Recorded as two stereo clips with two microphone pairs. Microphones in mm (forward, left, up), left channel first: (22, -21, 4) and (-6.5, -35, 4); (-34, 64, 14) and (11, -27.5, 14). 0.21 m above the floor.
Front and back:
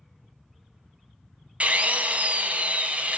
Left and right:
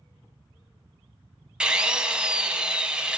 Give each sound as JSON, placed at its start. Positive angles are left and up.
{"t": 1.6, "sound": "a drill", "azimuth_deg": -145, "distance_m": 0.7}